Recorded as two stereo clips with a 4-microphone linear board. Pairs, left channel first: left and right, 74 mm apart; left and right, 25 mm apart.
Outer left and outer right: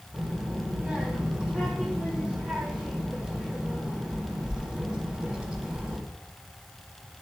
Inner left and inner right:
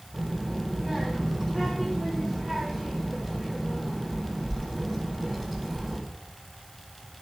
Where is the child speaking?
5° right (ahead or behind), 1.7 m.